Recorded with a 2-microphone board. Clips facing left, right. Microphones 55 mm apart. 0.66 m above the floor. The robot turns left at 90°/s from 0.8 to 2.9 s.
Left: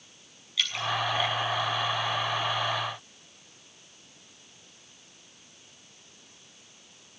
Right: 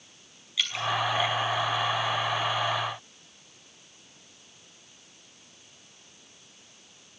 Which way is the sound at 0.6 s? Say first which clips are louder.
Even; 10° right (ahead or behind).